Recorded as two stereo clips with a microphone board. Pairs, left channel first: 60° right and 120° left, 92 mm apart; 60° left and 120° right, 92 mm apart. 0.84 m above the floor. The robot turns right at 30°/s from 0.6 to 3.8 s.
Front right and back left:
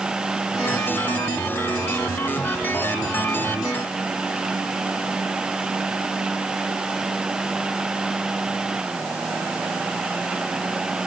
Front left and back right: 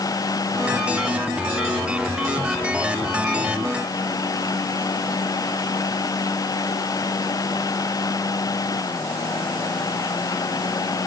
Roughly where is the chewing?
I don't hear chewing.